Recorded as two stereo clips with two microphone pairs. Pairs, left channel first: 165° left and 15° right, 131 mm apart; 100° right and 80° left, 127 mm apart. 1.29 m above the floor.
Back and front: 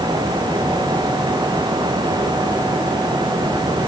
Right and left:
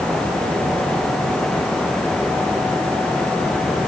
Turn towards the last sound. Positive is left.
No sound to turn to.